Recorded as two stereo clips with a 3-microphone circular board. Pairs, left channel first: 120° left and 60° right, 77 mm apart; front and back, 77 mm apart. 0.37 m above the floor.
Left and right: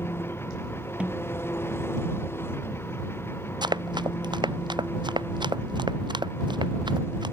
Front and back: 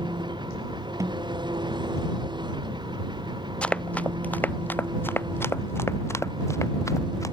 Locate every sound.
0.0 s an engine running: straight behind
1.0 s a snare drum: 135° right
3.6 s running footsteps: 75° right; by 7.3 s 45° right